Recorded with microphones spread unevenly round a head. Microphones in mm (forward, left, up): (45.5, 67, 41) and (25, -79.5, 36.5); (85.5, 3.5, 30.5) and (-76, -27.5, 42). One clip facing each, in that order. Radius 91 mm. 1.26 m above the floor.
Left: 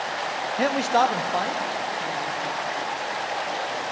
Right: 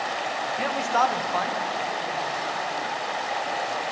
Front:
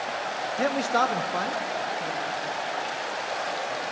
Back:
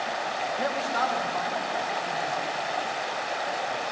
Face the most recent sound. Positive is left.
turn(degrees=5)